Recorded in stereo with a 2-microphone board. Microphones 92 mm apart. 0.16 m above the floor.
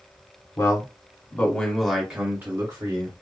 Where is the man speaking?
40° left (ahead or behind), 1.6 m; by 3.1 s 45° right (ahead or behind), 1.6 m.